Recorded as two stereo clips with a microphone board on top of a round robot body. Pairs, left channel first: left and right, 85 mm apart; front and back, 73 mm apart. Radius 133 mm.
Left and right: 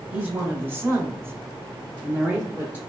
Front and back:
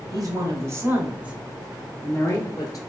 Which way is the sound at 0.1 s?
155° right.